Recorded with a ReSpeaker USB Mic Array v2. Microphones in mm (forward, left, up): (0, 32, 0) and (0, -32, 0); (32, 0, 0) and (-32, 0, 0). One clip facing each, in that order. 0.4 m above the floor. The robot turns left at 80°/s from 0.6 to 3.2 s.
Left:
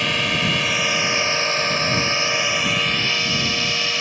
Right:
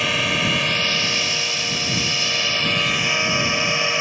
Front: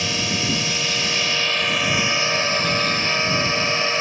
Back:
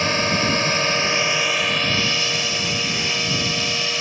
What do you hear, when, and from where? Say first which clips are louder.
0.0 s a drone: even, back 5 dB; straight behind; by 4.0 s 35° right